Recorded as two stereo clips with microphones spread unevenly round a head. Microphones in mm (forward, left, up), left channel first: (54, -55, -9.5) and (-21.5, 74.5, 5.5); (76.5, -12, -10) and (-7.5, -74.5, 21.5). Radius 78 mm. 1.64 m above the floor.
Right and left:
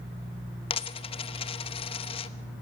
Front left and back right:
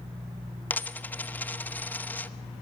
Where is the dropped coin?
55° right, 1.0 m.